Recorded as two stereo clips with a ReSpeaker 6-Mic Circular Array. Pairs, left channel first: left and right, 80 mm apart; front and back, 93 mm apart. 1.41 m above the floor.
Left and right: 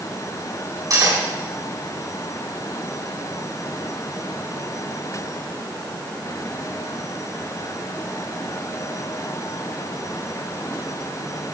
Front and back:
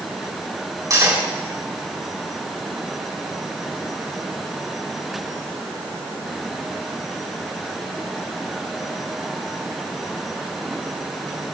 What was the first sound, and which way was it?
Cutlery clinking, 130° right.